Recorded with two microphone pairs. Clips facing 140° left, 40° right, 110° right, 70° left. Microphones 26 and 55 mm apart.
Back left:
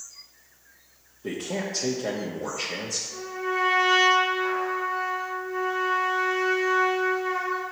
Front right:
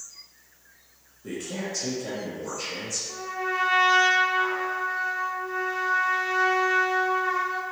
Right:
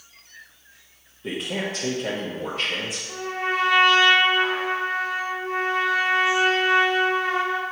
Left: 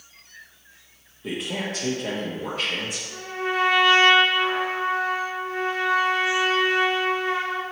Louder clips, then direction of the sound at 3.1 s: Front right 1 dB, right 2 dB; 75° right.